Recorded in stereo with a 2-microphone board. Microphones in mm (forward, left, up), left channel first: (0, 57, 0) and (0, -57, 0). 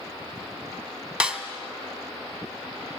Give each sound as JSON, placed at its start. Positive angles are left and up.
{"t": 1.2, "sound": "a snare drum", "side_deg": -10, "distance_m": 1.8}